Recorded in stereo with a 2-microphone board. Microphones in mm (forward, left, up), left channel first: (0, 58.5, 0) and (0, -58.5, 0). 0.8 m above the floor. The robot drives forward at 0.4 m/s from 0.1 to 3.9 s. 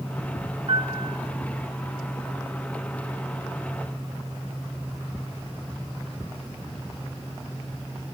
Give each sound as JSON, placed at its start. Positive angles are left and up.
{"t": 0.7, "sound": "a piano", "side_deg": -55, "distance_m": 0.9}